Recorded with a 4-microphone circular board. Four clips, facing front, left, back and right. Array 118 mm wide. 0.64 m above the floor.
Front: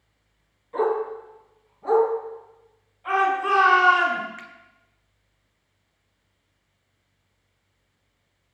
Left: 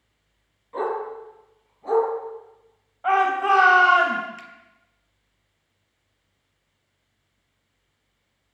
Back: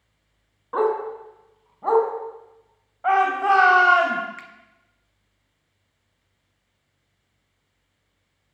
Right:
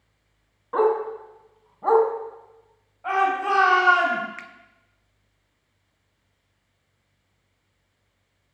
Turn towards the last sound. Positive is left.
turn(degrees=-95)